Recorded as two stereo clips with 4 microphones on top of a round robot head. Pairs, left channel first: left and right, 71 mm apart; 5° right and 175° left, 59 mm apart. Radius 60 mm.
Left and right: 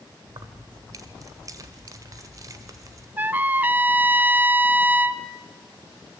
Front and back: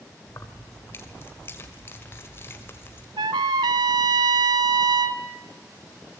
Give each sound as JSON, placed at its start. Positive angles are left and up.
{"t": 0.3, "sound": "keys jangling", "azimuth_deg": -55, "distance_m": 1.8}
{"t": 3.2, "sound": "a trumpet", "azimuth_deg": -155, "distance_m": 0.7}